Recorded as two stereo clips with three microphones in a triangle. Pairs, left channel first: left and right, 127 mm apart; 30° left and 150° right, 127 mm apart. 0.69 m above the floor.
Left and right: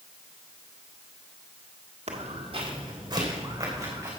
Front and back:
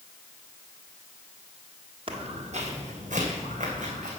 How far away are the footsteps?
About 1.5 m.